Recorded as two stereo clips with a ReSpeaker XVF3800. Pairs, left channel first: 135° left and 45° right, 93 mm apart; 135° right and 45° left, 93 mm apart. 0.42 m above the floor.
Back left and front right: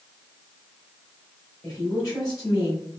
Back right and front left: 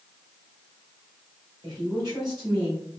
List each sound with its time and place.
1.6 s a woman speaking: 85° left, 2 m